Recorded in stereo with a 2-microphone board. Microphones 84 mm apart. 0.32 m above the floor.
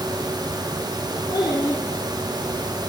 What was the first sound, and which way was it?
A child speaking, 65° left (ahead or behind).